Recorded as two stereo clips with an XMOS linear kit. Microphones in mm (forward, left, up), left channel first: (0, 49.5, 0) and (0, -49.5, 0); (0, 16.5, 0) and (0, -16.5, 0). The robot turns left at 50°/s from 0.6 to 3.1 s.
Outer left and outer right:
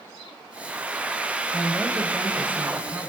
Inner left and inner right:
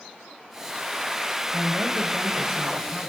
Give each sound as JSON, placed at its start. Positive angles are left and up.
{"t": 1.5, "sound": "a man speaking", "azimuth_deg": 10, "distance_m": 1.6}